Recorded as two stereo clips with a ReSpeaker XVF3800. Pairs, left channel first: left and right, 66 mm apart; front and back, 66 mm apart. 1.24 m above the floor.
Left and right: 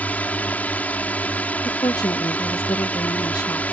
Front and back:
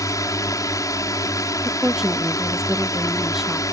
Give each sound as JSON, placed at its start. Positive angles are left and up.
{"t": 0.0, "sound": "a drone", "azimuth_deg": 25}
{"t": 1.6, "sound": "a woman speaking", "azimuth_deg": 95}